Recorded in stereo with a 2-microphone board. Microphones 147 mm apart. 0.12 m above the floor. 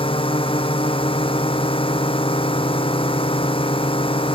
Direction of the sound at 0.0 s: 35° left (ahead or behind).